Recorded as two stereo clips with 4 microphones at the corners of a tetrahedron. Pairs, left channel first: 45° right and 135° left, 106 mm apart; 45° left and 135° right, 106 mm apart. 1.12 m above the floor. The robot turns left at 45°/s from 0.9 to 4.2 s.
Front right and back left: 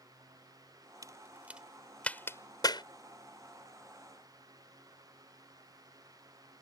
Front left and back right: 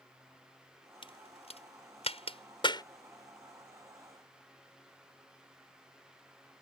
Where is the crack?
80° left; by 2.8 s straight ahead.